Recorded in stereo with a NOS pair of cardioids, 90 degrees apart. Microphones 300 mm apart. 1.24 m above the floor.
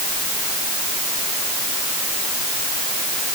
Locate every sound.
Only background noise.